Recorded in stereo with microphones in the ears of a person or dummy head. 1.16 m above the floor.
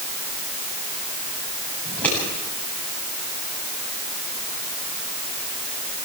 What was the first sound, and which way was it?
Scissors, 5° left (ahead or behind).